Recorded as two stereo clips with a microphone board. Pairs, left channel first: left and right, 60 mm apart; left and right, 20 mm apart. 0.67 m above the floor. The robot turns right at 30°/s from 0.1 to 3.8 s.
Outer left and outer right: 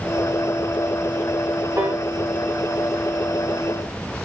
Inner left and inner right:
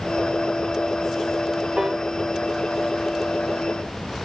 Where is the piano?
50° right (ahead or behind), 1.0 m; by 2.0 s 45° right (ahead or behind), 1.0 m.